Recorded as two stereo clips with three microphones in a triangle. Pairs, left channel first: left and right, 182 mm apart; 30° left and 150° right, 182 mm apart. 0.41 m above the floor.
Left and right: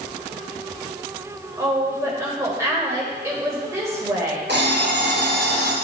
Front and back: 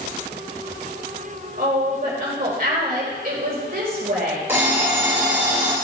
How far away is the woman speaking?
About 1.8 m.